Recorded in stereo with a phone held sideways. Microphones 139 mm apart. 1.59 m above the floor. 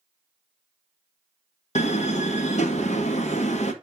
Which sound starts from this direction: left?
A door slam, at 1.8 s.